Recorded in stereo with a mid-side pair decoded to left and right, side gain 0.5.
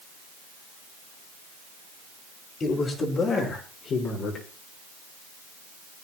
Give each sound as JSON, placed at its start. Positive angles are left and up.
{"t": 2.6, "sound": "a man speaking", "azimuth_deg": 45, "distance_m": 5.5}